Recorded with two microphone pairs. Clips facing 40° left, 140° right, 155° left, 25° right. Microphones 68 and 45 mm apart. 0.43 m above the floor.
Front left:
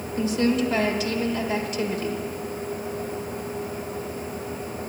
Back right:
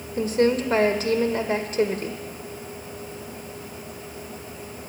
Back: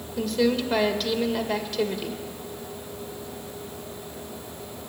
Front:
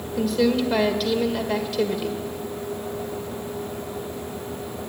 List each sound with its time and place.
0.2 s a woman speaking: 115° right, 1.5 m